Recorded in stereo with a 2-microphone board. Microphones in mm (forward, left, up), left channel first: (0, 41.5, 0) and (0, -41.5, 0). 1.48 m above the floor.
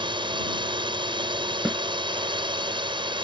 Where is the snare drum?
5° right (ahead or behind).